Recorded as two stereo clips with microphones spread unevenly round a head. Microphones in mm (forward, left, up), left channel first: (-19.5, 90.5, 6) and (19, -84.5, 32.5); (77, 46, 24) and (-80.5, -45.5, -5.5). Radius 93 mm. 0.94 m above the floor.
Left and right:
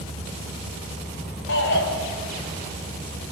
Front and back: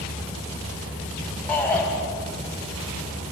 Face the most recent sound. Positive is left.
turn(degrees=110)